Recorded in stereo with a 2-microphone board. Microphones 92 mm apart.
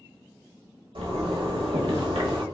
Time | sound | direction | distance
0.9 | a zipper | 85° right | 0.6 m